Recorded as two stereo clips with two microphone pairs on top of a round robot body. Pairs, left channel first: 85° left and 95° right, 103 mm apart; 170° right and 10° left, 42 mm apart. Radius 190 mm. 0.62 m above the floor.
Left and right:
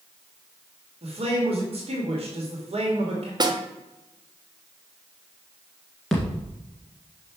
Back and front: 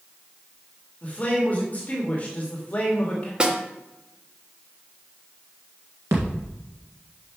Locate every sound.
1.0 s a man speaking: 115° right, 2 m
3.4 s a snare drum: 55° right, 1.3 m
6.1 s a thud: 5° right, 1.6 m